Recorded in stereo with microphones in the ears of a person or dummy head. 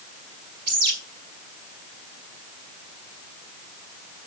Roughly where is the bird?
Right.